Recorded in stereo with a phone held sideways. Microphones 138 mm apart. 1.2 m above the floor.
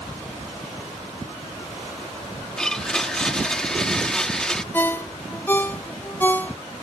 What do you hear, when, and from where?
2.6 s a blender: 5° left (ahead or behind)
4.7 s a ringtone: 15° left (ahead or behind)